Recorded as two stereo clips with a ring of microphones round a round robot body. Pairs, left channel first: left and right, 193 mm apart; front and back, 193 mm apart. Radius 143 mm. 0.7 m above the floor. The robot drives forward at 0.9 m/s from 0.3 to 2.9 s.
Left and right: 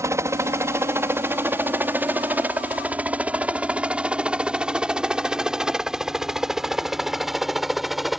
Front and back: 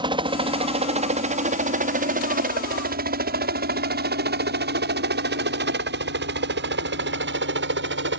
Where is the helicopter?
145° right; by 8.2 s straight behind.